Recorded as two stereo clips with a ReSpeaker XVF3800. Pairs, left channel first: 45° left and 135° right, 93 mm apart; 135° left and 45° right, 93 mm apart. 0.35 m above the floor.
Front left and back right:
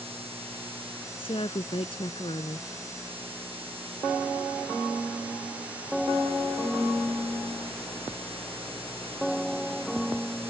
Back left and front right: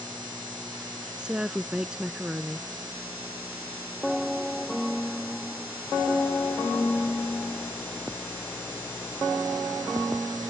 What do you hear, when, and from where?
1.2 s a woman speaking: 35° left